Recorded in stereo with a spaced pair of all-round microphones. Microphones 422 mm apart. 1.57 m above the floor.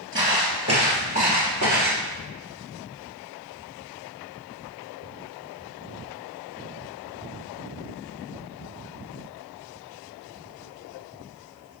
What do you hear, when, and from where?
0.1 s footsteps: 30° right (ahead or behind), 1.8 m; by 2.0 s 40° right (ahead or behind), 2 m